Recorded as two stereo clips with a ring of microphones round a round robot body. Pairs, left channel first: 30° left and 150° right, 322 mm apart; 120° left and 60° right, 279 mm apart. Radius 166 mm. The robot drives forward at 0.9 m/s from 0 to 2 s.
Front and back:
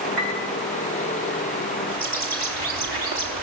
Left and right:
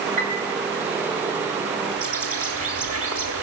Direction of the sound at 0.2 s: 85° right.